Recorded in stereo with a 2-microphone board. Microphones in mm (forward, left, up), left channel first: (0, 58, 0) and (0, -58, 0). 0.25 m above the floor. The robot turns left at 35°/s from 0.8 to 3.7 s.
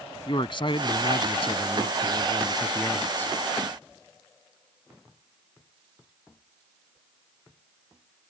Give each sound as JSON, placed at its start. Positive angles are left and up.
{"t": 0.3, "sound": "a man speaking", "azimuth_deg": 105}